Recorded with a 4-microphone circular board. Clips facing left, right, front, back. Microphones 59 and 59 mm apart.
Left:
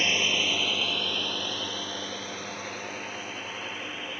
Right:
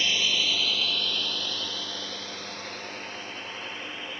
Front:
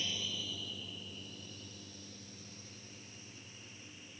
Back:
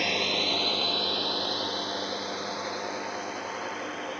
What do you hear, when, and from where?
0.0 s a drone: 155° left; by 4.2 s 175° left